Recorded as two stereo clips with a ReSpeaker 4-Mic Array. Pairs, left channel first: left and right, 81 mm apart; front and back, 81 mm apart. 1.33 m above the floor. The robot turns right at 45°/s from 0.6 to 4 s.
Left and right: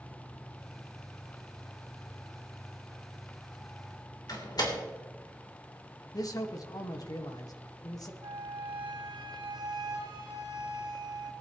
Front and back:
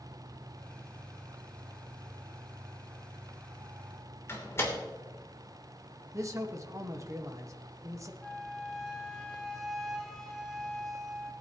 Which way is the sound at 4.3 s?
55° left.